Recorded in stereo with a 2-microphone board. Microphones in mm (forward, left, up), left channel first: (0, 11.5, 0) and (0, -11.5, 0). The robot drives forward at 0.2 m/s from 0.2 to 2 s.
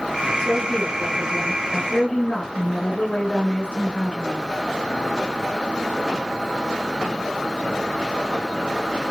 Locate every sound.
0.4 s a woman speaking: 60° left (ahead or behind), 4 m